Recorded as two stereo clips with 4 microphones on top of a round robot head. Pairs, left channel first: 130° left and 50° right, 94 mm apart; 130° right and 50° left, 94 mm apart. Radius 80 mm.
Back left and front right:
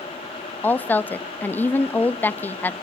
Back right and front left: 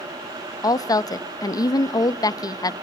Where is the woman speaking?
165° right, 0.7 m.